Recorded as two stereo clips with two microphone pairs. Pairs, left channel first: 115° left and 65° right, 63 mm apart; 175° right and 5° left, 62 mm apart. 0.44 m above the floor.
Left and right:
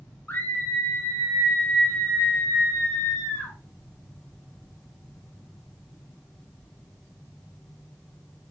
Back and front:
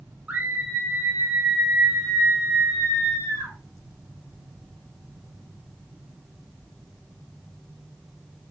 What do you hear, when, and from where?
0.3 s a scream: 60° left, 1.6 m; by 3.5 s 45° left, 3.5 m